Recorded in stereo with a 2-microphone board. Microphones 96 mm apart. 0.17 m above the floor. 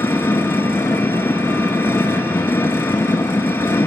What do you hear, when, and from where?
0.0 s an engine running: 25° left (ahead or behind), 0.9 m